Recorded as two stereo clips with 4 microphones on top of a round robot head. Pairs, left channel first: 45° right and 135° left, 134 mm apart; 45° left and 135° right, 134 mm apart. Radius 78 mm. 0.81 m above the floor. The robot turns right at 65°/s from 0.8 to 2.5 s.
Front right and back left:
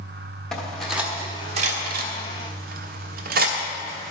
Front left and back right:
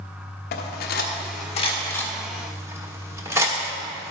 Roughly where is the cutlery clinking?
Ahead left.